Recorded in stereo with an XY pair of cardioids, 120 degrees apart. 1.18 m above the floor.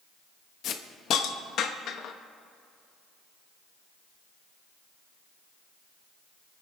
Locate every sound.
0.6 s a hiss: 60° left, 1.0 m